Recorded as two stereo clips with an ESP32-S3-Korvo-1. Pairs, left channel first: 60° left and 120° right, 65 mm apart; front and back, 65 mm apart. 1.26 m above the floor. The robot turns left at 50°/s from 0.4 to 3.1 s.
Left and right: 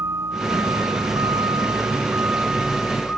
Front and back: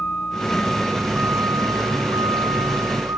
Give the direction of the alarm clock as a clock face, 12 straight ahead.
No alarm clock in this recording.